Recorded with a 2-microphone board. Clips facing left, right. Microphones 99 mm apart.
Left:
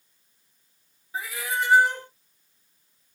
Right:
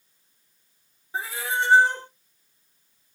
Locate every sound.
1.1 s a cat meowing: 30° right (ahead or behind), 0.9 m